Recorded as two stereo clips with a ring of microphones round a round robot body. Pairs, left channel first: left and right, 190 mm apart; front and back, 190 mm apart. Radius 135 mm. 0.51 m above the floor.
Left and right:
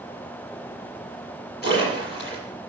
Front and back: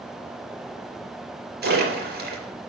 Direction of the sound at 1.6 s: 145° left.